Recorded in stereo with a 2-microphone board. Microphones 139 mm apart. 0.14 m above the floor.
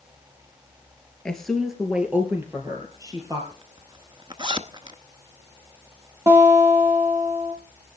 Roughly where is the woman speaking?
Centre.